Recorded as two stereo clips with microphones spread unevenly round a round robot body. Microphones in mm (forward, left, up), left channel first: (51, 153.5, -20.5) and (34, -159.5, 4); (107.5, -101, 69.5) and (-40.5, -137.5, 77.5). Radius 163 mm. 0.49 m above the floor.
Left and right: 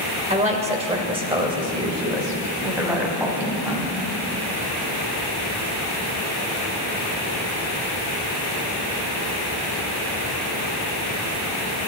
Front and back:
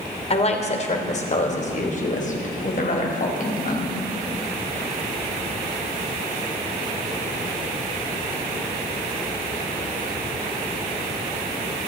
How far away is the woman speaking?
About 2 m.